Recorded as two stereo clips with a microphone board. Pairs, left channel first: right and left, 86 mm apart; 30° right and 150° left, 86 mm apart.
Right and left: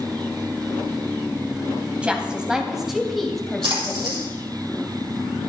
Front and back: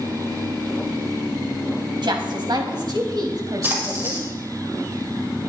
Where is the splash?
85° left, 4 m.